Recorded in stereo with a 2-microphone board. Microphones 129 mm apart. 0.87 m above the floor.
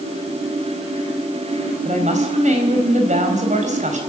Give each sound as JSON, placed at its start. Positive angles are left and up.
{"t": 1.9, "sound": "a woman speaking", "side_deg": -65, "distance_m": 4.5}